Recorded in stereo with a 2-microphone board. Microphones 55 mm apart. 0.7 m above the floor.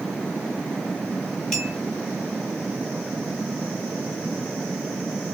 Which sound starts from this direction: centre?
A clink, at 1.5 s.